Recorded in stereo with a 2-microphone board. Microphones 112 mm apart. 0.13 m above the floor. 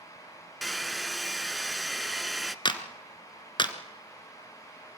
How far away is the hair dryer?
About 0.5 m.